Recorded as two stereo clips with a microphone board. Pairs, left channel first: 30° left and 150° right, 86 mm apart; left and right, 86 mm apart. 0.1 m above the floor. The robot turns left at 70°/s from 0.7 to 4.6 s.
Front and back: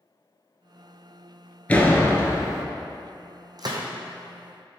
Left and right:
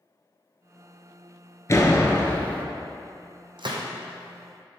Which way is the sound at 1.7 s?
90° left.